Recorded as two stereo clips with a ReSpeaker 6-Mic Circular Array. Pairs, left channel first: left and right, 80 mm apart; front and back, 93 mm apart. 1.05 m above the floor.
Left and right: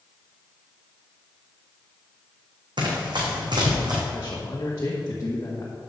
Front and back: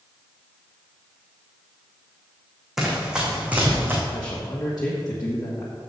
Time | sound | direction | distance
2.8 | running footsteps | 95° right | 3 m
4.1 | a man speaking | 40° left | 1.2 m